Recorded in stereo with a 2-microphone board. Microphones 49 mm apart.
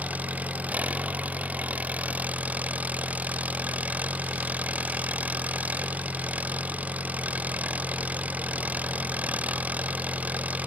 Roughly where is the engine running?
Right.